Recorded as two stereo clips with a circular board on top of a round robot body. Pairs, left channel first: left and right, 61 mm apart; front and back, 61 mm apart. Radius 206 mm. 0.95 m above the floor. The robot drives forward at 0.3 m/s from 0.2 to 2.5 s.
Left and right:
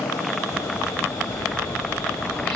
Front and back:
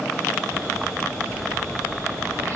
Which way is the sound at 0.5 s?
130° left.